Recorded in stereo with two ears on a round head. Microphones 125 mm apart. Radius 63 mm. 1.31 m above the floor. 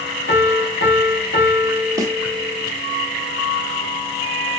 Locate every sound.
0.3 s a piano: 90° left, 1.3 m
2.0 s a snare drum: 25° right (ahead or behind), 1.1 m